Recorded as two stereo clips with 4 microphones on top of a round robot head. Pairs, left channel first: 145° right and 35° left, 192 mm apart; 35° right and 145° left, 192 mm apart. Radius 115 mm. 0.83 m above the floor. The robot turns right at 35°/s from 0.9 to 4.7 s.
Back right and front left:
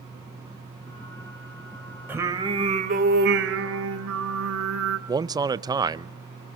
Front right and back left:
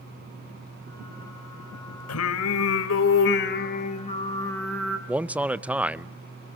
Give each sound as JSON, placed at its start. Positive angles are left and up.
{"t": 2.1, "sound": "singing", "azimuth_deg": -45, "distance_m": 1.7}
{"t": 5.1, "sound": "a man speaking", "azimuth_deg": 70, "distance_m": 0.6}